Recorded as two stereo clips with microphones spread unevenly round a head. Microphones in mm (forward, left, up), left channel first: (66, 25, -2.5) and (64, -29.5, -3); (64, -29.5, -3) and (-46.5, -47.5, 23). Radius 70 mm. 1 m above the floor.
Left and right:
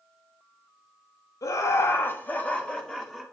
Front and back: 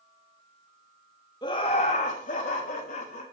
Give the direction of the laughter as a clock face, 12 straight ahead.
10 o'clock.